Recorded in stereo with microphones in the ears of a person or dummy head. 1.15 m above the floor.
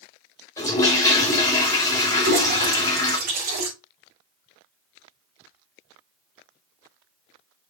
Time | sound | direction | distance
0.6 | a toilet flushing | 15° left (ahead or behind) | 3 m
2.2 | a toilet flushing | 50° right (ahead or behind) | 4.5 m